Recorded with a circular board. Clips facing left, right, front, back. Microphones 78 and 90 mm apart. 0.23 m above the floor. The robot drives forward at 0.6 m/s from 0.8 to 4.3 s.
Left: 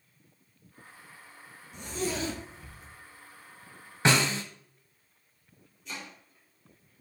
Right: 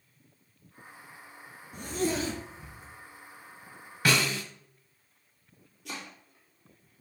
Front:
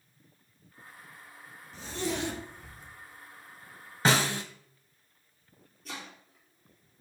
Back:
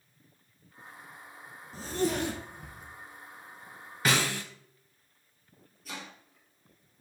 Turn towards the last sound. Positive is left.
turn(degrees=-90)